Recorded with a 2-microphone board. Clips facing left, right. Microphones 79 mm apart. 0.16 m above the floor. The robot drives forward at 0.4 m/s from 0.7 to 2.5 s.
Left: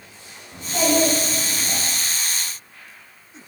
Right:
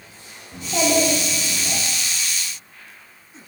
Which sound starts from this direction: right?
A child speaking, at 0.5 s.